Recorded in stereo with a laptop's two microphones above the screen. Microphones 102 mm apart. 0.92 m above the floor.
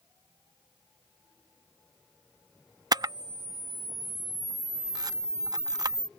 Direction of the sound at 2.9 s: 40° right (ahead or behind).